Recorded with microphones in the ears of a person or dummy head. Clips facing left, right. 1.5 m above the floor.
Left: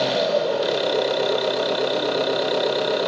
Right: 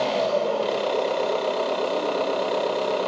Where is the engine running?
25° left (ahead or behind), 1.9 m.